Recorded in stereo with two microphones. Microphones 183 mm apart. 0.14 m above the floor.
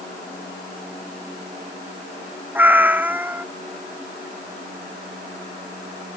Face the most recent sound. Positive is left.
turn(degrees=-10)  # may be behind; listen again after turning